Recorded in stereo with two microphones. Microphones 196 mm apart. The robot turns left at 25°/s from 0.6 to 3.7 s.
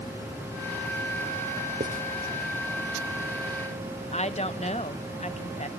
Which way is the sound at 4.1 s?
35° left (ahead or behind).